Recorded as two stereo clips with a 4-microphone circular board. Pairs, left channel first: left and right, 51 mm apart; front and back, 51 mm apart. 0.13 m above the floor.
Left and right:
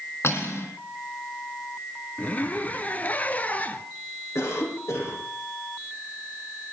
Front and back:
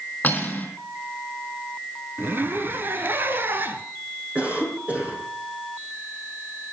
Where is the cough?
115° left, 5.5 m.